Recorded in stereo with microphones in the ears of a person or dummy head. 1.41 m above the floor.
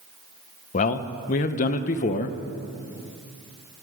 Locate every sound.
0.7 s a man speaking: 40° left (ahead or behind), 0.7 m